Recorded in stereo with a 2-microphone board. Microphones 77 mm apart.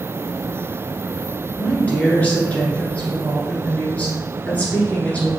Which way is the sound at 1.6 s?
20° left (ahead or behind).